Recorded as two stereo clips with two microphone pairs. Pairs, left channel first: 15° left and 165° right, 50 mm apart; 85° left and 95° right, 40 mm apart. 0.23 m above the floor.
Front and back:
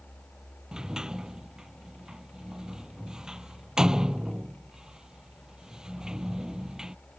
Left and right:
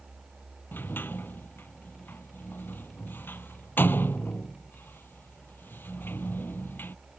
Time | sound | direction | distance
0.7 | a sliding door | 115° left | ?